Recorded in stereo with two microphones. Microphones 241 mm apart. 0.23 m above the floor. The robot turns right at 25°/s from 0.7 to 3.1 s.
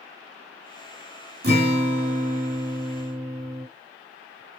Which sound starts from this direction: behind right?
A guitar, at 1.4 s.